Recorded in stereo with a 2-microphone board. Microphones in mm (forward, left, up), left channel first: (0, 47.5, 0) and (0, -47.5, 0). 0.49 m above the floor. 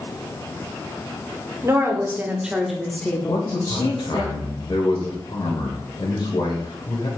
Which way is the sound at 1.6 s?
35° right (ahead or behind).